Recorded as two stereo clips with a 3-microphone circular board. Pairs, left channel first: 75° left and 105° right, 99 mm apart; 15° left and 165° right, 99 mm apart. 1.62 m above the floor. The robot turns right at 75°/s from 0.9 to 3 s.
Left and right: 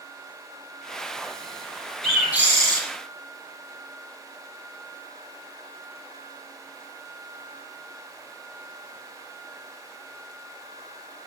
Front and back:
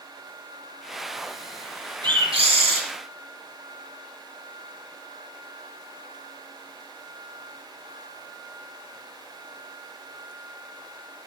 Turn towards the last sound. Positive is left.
turn(degrees=-125)